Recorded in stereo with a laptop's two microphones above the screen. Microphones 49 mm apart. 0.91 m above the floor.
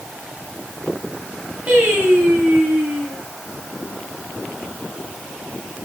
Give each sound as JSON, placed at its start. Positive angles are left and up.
{"t": 1.7, "sound": "singing", "side_deg": -25, "distance_m": 5.0}